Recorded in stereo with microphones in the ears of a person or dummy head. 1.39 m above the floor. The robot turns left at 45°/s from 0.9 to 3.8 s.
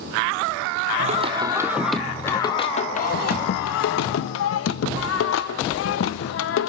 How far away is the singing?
About 0.9 m.